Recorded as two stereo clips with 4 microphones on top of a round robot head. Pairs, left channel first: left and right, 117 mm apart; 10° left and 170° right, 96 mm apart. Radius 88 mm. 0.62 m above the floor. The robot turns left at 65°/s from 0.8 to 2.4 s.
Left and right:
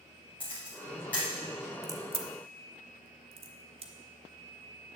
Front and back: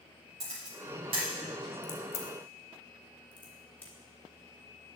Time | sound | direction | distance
0.4 | a camera shutter | 170° right | 4 m
1.8 | a crack | 25° right | 1.0 m